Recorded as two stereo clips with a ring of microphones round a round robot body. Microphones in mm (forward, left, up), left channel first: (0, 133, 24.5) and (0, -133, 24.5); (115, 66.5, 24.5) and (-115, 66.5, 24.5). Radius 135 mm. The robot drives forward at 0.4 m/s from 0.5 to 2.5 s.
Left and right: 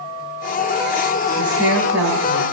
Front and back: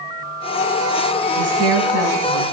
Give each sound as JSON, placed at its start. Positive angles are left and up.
{"t": 1.4, "sound": "a woman speaking", "azimuth_deg": -175, "distance_m": 2.5}